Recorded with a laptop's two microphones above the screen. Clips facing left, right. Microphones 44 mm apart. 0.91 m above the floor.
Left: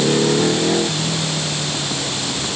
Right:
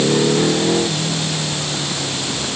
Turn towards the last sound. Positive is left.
No sound to turn to.